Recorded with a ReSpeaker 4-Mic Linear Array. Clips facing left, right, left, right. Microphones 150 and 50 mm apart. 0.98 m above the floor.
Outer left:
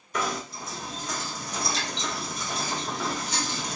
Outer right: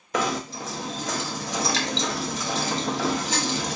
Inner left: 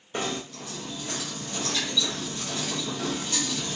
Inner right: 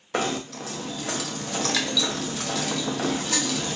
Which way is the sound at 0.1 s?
90° right.